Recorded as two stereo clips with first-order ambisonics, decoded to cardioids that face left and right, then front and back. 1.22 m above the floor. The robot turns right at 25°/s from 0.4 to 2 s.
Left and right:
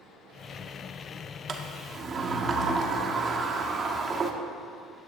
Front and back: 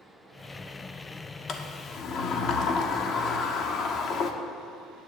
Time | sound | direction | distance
1.5 | a sliding door | 45° right | 0.8 m